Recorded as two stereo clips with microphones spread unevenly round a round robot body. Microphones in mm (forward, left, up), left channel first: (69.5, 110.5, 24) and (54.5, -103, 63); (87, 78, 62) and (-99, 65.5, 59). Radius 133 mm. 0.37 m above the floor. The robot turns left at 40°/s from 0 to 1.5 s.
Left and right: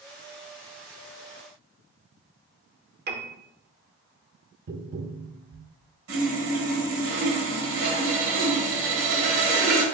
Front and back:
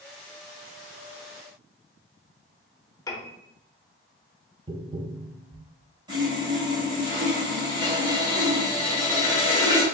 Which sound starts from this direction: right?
Sawing, at 6.1 s.